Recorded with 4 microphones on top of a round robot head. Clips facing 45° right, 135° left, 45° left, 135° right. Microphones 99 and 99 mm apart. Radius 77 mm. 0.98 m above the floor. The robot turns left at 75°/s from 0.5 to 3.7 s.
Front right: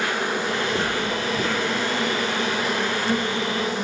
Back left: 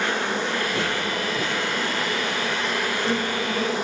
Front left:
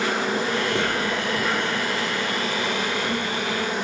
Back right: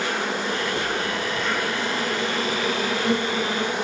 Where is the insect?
30° left, 10 m; by 3.8 s 150° left, 10 m.